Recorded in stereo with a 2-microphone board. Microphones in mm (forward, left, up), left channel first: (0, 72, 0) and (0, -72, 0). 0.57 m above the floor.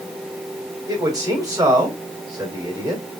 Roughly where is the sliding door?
I don't hear a sliding door.